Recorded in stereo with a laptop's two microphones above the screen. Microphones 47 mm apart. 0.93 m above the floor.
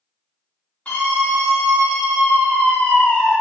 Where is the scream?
25° left (ahead or behind), 1.8 m.